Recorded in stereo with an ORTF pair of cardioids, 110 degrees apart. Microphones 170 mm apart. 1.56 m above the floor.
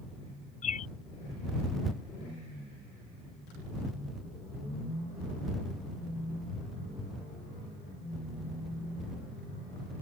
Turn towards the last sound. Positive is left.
turn(degrees=50)